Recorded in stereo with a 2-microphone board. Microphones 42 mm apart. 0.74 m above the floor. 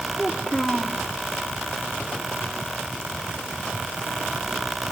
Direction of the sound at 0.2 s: 15° left (ahead or behind).